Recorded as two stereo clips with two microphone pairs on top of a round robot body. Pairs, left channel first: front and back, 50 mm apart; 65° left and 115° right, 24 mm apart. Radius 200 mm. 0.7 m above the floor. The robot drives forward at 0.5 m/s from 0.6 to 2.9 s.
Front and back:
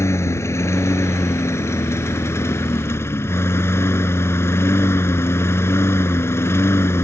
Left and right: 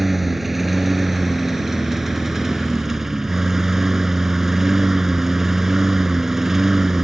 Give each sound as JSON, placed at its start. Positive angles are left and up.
{"t": 0.0, "sound": "a lawn mower", "azimuth_deg": -30}